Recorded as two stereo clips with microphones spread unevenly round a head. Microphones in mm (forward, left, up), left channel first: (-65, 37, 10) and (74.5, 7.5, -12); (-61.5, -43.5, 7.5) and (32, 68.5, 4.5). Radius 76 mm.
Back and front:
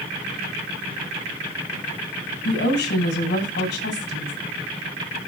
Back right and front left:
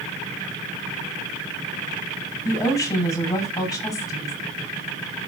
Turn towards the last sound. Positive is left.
turn(degrees=165)